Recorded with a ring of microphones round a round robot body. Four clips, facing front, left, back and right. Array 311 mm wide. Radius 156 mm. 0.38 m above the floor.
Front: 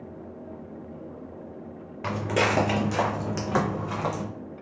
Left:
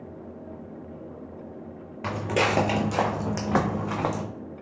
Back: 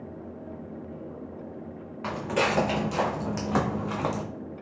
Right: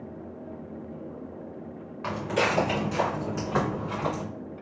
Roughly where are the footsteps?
Ahead left.